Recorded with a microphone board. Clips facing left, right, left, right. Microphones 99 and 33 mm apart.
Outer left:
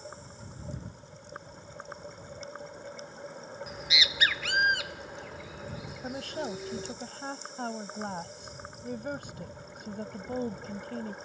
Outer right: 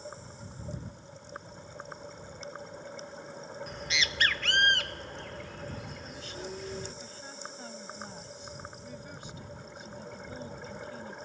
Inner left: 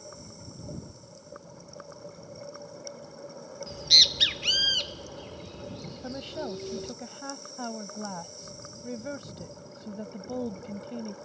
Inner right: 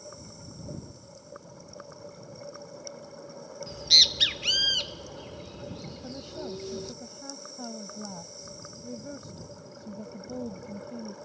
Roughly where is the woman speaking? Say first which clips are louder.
Outer left 6 dB, inner left 4 dB; left.